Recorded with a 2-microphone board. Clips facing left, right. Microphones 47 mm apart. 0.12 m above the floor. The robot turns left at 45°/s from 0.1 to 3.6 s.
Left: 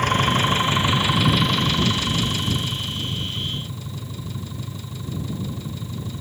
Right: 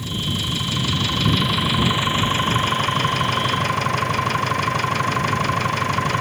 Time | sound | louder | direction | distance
0.0 | an engine running | left 7 dB | 60° left | ?